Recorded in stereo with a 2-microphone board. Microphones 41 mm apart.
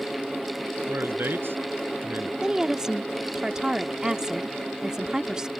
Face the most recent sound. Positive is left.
turn(degrees=-20)  # may be behind; listen again after turning